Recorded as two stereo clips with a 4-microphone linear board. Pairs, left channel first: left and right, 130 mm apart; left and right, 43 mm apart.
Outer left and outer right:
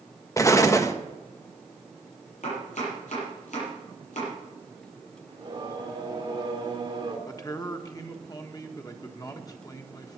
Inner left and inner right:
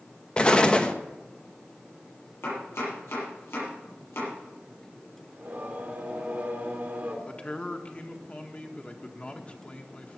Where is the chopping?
70° left (ahead or behind), 8.5 m.